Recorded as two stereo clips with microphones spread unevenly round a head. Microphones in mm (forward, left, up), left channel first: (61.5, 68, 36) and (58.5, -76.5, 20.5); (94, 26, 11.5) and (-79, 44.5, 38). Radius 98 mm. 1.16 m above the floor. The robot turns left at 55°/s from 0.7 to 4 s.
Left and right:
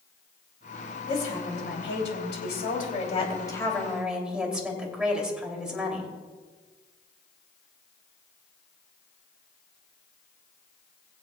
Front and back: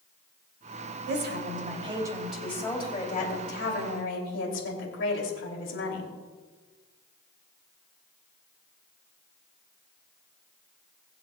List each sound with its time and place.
1.1 s a woman speaking: 155° left, 3 m; by 6.1 s 10° right, 3 m